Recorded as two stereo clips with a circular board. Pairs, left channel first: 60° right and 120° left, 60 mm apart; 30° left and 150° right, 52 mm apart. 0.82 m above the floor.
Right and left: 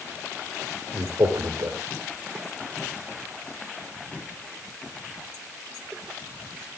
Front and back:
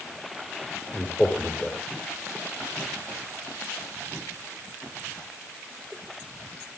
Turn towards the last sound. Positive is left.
turn(degrees=110)